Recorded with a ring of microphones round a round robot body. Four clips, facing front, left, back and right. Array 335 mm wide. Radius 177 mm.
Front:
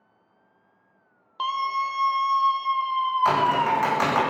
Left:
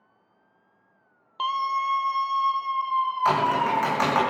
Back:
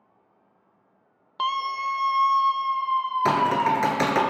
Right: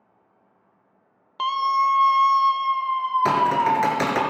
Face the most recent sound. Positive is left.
turn(degrees=-135)